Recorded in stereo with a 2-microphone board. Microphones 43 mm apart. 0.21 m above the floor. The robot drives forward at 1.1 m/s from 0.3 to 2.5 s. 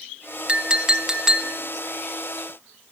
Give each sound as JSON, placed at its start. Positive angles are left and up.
{"t": 0.5, "sound": "a clink", "side_deg": -25, "distance_m": 0.9}